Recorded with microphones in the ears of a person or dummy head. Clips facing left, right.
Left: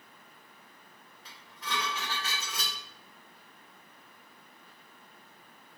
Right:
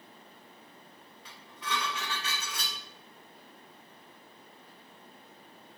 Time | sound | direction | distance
1.2 | dishes clattering | 30° left (ahead or behind) | 1.3 m